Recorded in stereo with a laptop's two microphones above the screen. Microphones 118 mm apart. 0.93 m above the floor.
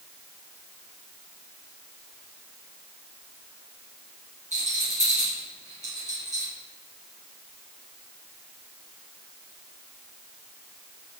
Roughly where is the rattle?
Right.